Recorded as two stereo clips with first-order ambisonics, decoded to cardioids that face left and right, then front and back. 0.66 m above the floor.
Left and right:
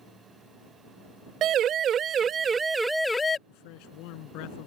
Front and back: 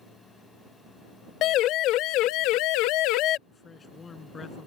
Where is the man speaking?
75° left.